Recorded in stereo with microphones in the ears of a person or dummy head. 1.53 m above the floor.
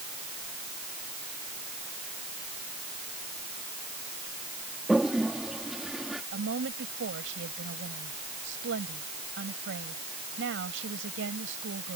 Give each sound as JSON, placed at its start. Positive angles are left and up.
{"t": 4.9, "sound": "a toilet flushing", "side_deg": 0}
{"t": 6.3, "sound": "a woman speaking", "side_deg": -75}